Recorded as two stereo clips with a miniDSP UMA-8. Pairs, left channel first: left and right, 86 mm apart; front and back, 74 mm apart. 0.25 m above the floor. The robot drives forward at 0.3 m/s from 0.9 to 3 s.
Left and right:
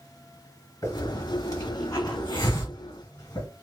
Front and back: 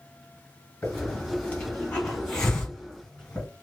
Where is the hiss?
60° left, 2.0 m; by 3.5 s 85° left, 1.8 m.